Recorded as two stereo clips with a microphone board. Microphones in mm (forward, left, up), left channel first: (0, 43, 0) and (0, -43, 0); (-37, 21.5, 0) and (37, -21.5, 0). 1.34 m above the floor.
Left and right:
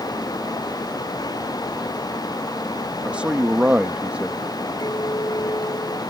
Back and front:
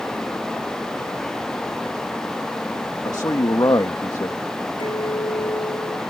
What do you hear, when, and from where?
3.0 s a man speaking: 165° right
4.8 s a clink: 130° left